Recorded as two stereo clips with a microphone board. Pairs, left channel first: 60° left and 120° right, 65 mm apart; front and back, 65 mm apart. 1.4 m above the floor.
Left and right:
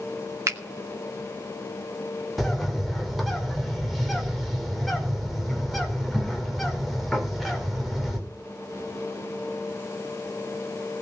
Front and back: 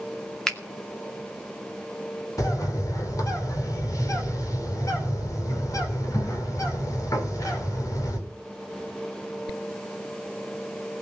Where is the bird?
30° right, 4.5 m.